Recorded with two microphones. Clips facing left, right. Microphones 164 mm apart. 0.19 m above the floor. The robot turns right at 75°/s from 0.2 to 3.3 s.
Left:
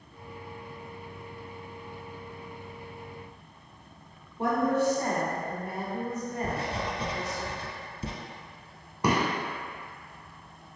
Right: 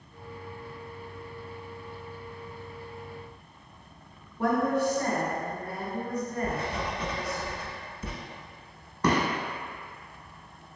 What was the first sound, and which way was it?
A woman speaking, 25° left (ahead or behind).